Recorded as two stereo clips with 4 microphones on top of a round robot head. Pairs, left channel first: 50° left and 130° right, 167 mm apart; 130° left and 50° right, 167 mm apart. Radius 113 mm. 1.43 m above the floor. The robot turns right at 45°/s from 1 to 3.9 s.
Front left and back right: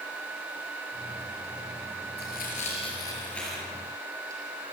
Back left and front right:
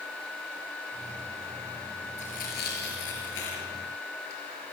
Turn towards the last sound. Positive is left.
turn(degrees=160)